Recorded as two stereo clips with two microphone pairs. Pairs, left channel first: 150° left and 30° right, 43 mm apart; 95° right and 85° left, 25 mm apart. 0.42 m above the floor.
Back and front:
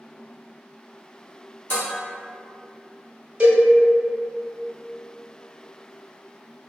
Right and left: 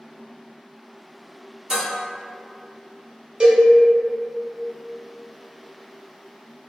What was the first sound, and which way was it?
Dishes clattering, 145° left.